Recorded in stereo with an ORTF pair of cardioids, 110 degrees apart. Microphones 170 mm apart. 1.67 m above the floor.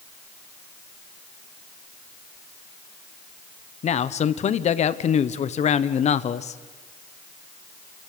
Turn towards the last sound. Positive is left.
turn(degrees=40)